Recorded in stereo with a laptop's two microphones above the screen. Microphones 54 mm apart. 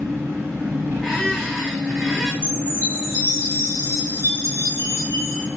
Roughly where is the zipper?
I don't hear a zipper.